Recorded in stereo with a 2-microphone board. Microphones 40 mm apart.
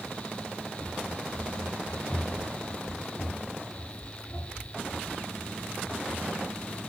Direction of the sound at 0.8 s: 35° left (ahead or behind).